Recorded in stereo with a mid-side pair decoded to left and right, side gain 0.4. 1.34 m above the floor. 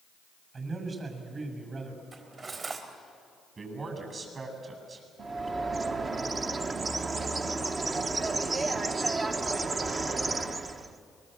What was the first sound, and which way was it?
A man speaking, 50° right.